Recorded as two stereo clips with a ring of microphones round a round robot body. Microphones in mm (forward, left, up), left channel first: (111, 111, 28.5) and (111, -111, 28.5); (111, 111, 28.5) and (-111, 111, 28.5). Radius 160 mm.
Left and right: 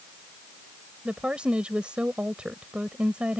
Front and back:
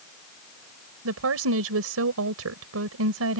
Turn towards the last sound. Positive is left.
turn(degrees=-175)